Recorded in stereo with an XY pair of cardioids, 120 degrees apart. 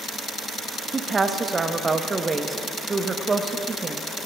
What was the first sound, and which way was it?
A woman speaking, 25° right.